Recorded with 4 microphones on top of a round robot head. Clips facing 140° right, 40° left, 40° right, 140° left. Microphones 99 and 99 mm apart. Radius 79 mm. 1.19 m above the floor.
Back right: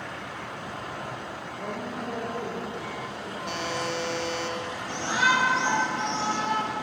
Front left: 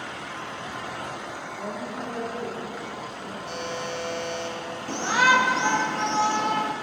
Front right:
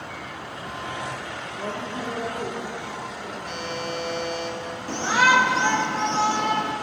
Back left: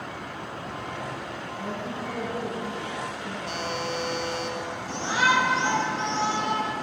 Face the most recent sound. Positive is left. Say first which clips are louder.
# front left 4 dB, front right 4 dB
turn(degrees=0)